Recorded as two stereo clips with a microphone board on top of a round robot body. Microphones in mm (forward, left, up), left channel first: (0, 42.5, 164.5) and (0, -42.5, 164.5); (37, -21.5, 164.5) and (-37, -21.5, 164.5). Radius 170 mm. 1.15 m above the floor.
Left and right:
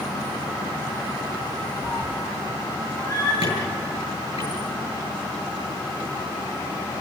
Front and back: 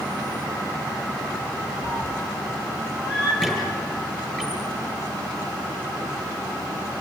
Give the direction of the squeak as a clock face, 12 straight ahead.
9 o'clock.